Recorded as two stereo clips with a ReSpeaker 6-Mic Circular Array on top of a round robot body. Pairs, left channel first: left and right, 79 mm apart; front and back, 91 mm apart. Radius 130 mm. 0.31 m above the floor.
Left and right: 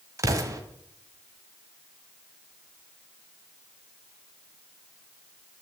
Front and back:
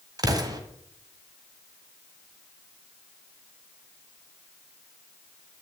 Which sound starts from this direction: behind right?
An explosion, at 0.2 s.